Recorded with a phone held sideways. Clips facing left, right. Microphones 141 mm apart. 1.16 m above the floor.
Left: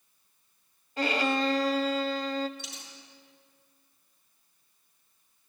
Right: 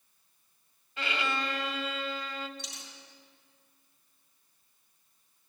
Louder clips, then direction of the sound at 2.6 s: Left 1 dB; centre (ahead or behind).